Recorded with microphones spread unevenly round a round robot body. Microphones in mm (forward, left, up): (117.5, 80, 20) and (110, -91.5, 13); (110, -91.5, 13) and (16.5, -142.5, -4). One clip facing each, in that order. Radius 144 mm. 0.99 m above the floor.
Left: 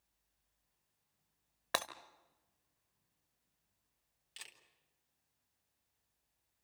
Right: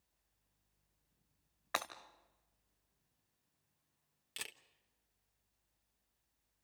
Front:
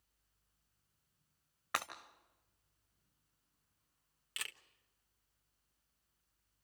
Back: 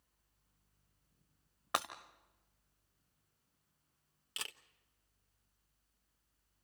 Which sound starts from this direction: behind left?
Breaking glass, at 1.7 s.